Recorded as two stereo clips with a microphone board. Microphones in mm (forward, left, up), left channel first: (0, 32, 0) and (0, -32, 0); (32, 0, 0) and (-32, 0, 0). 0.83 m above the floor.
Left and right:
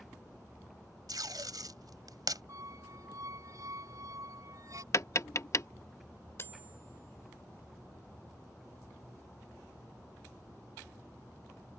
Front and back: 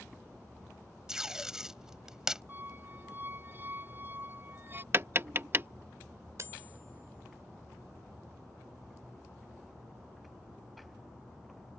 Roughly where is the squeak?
Behind right.